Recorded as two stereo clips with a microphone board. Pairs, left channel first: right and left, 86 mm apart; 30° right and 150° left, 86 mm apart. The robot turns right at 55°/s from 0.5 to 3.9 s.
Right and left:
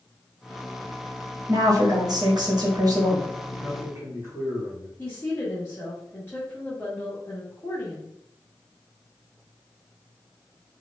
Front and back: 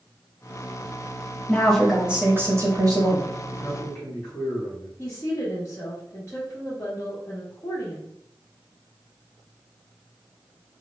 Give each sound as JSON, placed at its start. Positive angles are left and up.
{"t": 1.5, "sound": "a woman speaking", "azimuth_deg": 40, "distance_m": 0.8}
{"t": 3.6, "sound": "a man speaking", "azimuth_deg": 30, "distance_m": 1.6}
{"t": 5.0, "sound": "a woman speaking", "azimuth_deg": -45, "distance_m": 0.7}